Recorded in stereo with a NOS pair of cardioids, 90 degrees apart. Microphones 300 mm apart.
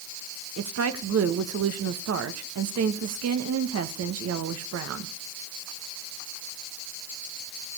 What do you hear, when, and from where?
0.6 s a woman speaking: 55° right, 1.7 m